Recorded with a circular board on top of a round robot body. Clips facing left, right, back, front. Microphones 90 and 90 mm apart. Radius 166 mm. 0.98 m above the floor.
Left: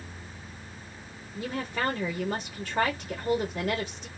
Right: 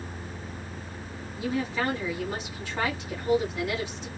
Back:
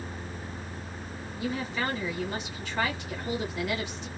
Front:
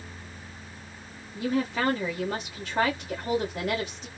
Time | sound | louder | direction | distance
1.4 | a woman speaking | right 3 dB, front 5 dB | 50° left | 1.8 m